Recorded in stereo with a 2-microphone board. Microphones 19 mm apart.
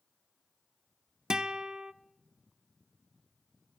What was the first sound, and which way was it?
A guitar, 40° right (ahead or behind).